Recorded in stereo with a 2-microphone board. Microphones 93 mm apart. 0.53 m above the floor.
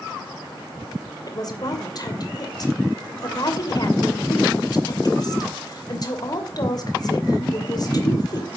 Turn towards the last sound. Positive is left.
turn(degrees=45)  # may be behind; listen again after turning